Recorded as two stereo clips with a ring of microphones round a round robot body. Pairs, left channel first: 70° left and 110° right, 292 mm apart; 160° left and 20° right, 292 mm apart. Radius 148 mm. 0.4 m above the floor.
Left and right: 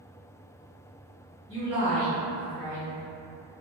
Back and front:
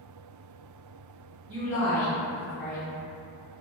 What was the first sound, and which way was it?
A woman speaking, 35° right.